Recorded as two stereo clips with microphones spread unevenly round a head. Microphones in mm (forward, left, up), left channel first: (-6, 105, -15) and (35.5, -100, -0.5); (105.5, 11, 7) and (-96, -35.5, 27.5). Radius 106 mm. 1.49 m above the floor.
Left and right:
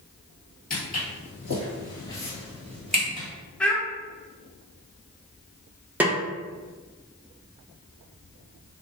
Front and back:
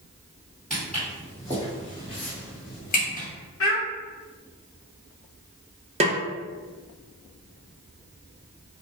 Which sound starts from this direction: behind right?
A snare drum, at 6.0 s.